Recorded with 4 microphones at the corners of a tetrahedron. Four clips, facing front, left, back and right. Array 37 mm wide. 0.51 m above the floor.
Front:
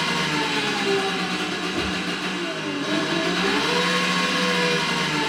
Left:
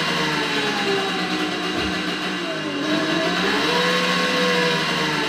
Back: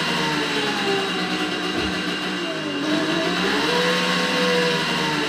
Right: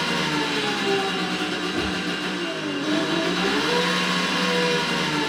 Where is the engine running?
130° left, 0.8 m.